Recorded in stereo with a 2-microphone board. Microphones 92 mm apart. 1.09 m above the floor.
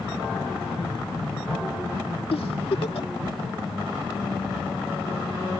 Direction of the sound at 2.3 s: 85° left.